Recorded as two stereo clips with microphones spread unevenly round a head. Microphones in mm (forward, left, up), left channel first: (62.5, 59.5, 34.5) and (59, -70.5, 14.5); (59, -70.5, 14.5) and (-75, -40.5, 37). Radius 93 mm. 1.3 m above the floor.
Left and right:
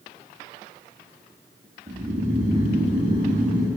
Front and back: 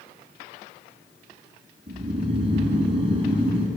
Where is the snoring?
145° right, 5.5 m.